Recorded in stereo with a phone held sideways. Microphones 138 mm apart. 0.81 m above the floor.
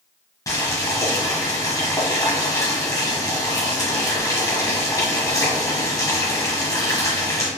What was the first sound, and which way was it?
Boiling, 25° left (ahead or behind).